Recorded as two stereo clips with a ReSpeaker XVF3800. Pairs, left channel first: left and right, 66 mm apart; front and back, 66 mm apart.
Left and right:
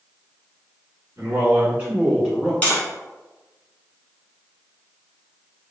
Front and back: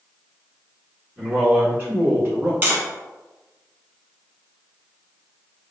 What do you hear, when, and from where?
1.2 s a man speaking: 120° right, 1.9 m; by 2.5 s straight behind, 1.6 m
2.6 s tapping: 140° left, 0.9 m